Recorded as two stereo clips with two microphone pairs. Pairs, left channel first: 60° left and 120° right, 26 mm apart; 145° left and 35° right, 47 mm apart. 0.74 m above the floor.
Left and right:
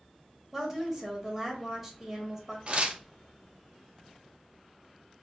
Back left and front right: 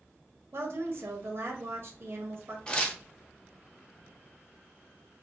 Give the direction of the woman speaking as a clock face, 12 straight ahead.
1 o'clock.